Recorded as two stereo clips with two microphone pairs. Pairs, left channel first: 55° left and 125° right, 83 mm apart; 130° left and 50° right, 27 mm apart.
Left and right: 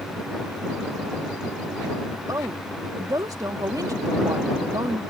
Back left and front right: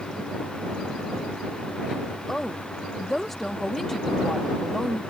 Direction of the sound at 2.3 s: 150° right.